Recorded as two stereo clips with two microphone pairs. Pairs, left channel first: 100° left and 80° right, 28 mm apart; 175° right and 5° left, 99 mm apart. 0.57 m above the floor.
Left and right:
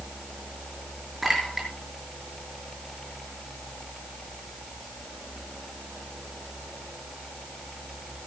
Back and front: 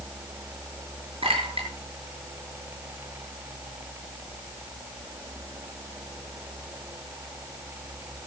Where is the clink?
10° left, 6.5 m.